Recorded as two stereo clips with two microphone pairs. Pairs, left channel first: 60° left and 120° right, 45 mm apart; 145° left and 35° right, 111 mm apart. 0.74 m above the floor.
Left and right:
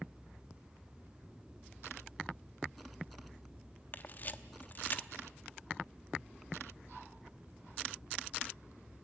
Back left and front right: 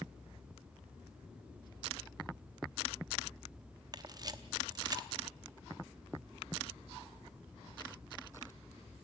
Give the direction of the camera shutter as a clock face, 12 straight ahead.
11 o'clock.